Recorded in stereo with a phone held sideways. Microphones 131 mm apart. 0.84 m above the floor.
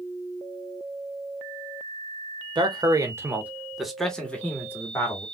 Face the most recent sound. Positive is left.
turn(degrees=25)  # may be behind; listen again after turning